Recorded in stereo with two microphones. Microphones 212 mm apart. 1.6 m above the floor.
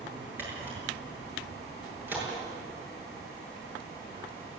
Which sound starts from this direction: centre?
A camera shutter, at 0.4 s.